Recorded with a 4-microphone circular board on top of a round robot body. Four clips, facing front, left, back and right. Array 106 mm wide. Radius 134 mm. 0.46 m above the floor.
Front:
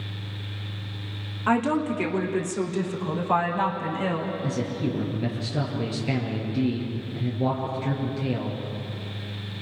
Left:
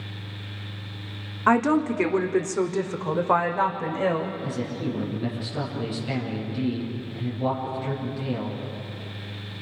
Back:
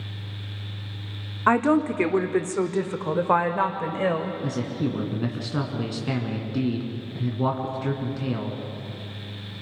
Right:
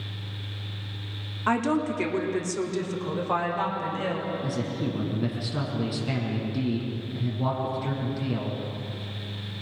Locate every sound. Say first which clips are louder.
1.5 s a woman speaking: left 4 dB, back 3 dB; 145° left, 1.8 m
4.4 s a man speaking: even, even; 170° right, 5.5 m